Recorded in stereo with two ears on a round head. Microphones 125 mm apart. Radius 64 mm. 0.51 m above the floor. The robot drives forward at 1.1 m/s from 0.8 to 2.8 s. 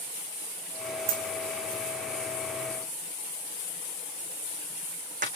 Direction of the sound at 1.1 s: 70° right (ahead or behind).